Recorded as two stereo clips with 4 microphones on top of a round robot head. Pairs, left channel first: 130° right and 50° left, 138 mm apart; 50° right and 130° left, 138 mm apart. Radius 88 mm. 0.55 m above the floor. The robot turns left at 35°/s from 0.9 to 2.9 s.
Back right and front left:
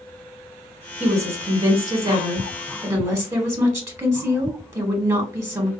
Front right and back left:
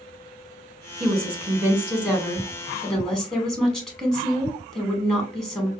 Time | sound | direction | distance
1.0 | a woman speaking | 90° left | 1.3 m